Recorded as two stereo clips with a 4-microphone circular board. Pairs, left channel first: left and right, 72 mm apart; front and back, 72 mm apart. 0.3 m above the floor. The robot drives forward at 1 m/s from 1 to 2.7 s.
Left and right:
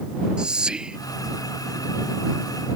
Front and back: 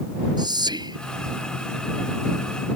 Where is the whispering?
170° right.